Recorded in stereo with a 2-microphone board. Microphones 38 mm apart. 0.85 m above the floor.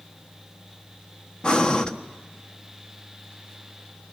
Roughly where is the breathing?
Left.